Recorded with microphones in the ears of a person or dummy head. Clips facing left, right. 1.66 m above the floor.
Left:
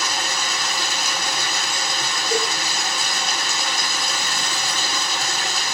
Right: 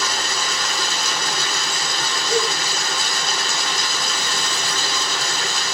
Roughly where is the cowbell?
Left.